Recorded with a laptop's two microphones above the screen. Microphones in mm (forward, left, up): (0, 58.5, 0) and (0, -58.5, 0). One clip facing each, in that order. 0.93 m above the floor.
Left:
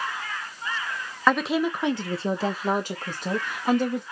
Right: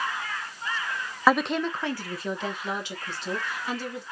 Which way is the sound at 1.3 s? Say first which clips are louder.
Left 1 dB; 5° right (ahead or behind).